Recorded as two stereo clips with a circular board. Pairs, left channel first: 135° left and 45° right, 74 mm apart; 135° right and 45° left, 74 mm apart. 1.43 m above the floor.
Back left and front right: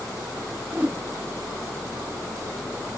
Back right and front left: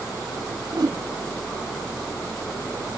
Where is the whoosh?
15° left, 1.1 m.